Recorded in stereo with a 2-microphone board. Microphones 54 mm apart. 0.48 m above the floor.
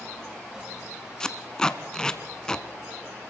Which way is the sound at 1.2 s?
15° left (ahead or behind).